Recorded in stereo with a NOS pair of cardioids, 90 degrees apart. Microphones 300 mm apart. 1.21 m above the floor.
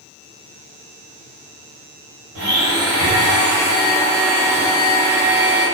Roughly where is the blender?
Ahead right.